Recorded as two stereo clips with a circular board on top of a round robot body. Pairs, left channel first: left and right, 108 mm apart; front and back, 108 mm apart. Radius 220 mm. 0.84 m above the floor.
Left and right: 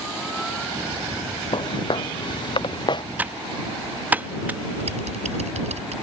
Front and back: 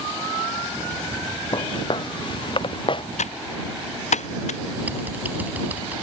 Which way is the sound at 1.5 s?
45° left.